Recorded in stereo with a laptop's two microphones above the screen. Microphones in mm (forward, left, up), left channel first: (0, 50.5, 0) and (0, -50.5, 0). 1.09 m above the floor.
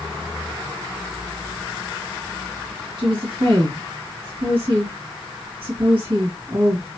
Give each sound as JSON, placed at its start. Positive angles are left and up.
{"t": 3.0, "sound": "a woman speaking", "side_deg": -60, "distance_m": 2.0}